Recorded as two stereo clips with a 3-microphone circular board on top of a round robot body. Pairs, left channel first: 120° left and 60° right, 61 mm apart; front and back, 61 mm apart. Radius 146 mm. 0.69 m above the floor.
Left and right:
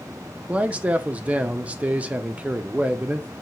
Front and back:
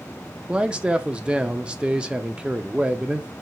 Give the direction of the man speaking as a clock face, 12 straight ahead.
4 o'clock.